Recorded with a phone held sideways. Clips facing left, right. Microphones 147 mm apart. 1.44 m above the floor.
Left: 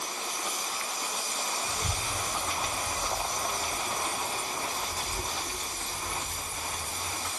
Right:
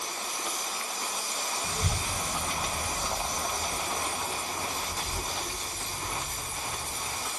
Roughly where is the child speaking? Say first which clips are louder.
Right 1 dB; right.